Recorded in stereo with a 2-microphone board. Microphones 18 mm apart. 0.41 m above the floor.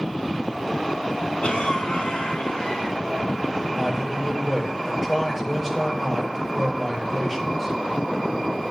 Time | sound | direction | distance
1.4 | a cough | 70° left (ahead or behind) | 7 m
3.8 | a man speaking | 10° right (ahead or behind) | 7.5 m